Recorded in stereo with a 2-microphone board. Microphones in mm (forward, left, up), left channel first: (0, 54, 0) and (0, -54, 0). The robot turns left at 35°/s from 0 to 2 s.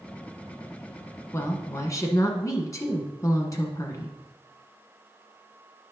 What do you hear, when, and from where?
1.3 s a woman speaking: 25° left (ahead or behind), 1.2 m; by 4.2 s 30° left (ahead or behind), 1.2 m